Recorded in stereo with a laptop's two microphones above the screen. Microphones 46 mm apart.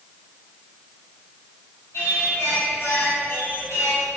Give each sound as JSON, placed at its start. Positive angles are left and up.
{"t": 1.9, "sound": "singing", "side_deg": 80, "distance_m": 4.0}